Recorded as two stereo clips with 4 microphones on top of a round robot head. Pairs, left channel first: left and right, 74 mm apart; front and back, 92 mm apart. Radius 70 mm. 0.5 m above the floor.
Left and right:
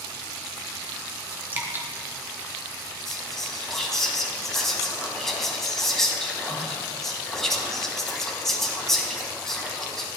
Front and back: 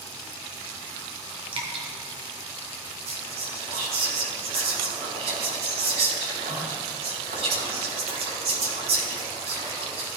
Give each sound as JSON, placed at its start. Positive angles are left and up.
{"t": 1.5, "sound": "dripping", "azimuth_deg": -150, "distance_m": 1.9}
{"t": 3.1, "sound": "whispering", "azimuth_deg": 175, "distance_m": 3.5}